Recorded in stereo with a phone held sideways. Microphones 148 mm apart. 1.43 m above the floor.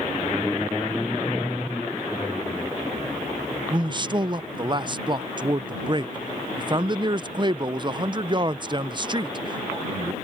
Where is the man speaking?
30° right (ahead or behind).